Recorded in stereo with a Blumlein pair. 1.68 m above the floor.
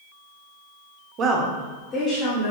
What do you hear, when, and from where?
1.2 s a woman speaking: 30° right, 0.6 m; by 2.5 s 50° left, 1.1 m